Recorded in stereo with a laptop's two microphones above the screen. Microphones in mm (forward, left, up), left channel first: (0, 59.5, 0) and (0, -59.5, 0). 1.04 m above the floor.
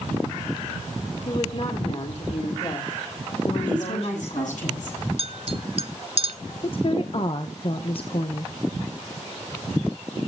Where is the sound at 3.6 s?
80° left, 9 m.